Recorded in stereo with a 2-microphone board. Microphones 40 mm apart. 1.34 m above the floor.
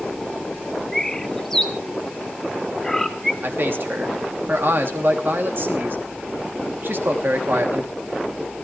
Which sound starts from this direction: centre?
A bird, at 0.9 s.